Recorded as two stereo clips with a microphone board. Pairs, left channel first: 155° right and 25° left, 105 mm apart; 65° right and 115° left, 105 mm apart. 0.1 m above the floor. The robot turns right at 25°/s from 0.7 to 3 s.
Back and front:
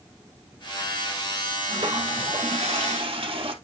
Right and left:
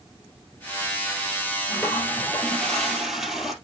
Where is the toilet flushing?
5° right, 2.0 m; by 3.5 s 25° left, 2.0 m.